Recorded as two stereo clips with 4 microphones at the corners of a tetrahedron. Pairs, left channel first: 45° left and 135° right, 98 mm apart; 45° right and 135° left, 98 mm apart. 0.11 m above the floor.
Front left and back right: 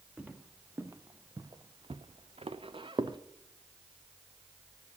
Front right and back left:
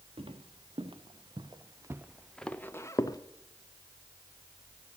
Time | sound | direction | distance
0.2 | footsteps | 150° left | 1.4 m